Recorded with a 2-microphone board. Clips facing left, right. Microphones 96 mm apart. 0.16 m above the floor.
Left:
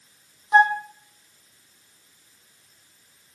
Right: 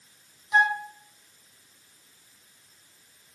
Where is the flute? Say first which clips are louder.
Left 6 dB; 45° left (ahead or behind), 1.9 m.